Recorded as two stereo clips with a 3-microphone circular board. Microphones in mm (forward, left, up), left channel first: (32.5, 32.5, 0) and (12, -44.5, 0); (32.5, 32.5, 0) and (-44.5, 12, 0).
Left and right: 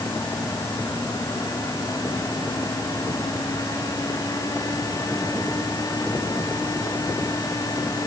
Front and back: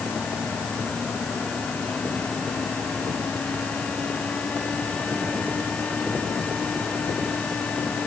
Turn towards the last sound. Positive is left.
No sound to turn to.